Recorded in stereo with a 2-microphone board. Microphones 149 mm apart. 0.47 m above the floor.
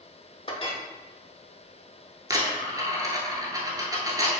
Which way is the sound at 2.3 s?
25° right (ahead or behind).